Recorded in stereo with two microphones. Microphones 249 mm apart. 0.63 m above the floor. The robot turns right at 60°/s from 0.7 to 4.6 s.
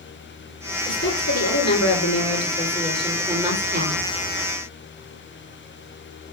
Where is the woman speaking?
45° left, 8 m; by 4.1 s 120° right, 8 m.